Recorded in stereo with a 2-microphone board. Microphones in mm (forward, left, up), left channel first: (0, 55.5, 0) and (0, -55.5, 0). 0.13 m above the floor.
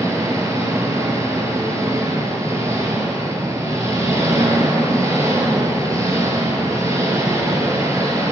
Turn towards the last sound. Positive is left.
turn(degrees=-30)  # may be behind; listen again after turning